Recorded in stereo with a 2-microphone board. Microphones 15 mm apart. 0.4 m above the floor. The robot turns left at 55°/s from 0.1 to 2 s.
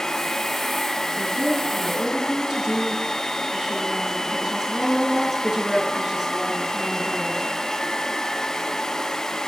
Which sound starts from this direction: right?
A woman speaking, at 1.2 s.